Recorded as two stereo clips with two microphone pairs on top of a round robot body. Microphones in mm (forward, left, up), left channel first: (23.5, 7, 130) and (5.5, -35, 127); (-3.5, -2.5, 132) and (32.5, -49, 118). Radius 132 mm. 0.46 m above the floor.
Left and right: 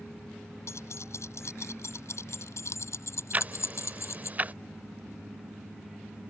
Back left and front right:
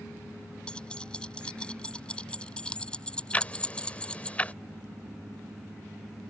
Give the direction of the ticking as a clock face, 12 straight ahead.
5 o'clock.